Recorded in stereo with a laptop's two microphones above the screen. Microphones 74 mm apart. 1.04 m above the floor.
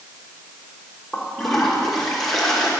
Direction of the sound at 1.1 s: 5° left (ahead or behind).